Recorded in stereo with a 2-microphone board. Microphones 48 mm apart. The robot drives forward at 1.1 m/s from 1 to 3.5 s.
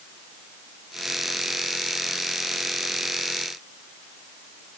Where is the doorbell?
No doorbell in this recording.